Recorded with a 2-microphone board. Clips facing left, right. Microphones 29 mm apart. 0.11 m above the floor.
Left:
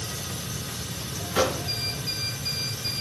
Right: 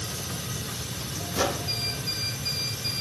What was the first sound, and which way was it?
A microwave, 55° left (ahead or behind).